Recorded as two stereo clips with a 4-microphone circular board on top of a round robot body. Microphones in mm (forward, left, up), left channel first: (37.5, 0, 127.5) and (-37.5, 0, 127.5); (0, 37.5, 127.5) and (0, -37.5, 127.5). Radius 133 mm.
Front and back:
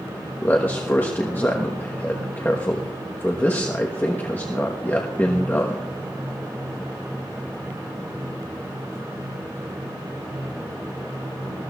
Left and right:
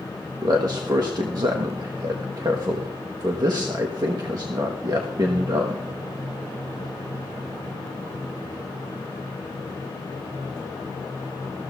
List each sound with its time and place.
0.4 s a man speaking: 65° right, 1.2 m